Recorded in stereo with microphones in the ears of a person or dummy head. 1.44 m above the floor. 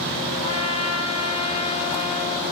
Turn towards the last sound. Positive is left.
turn(degrees=35)  # may be behind; listen again after turning